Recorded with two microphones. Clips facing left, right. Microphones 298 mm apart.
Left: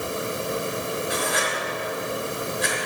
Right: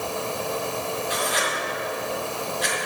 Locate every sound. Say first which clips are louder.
1.1 s writing: left 1 dB; 60° left (ahead or behind), 3.5 m